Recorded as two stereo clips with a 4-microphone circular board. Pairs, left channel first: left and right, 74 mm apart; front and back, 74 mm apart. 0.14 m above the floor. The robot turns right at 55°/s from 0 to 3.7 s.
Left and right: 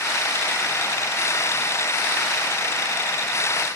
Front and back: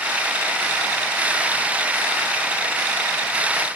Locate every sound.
Only background noise.